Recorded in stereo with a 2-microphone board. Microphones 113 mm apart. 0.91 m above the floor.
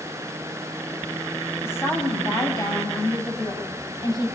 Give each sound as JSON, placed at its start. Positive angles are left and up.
{"t": 1.6, "sound": "a woman speaking", "side_deg": 20, "distance_m": 5.5}